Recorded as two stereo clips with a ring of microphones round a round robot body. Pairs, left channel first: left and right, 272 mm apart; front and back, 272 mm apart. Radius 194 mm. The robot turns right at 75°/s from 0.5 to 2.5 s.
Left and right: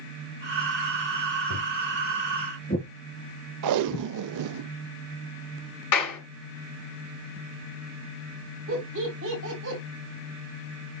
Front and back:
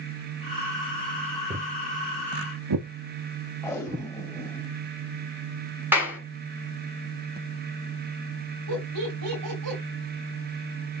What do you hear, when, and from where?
1.5 s footsteps: 115° left, 2.5 m
3.6 s tape being pulled: 85° right, 0.6 m
5.9 s a clap: 100° left, 3.5 m
8.7 s laughter: 145° right, 3 m